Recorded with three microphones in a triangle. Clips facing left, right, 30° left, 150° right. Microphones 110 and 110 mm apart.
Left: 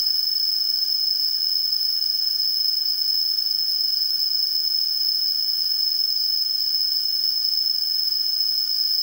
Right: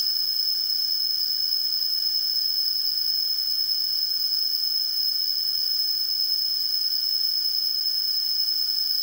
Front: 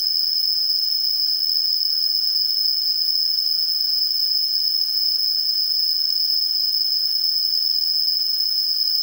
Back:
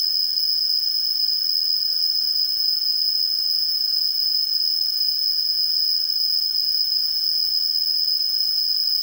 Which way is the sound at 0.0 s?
160° right.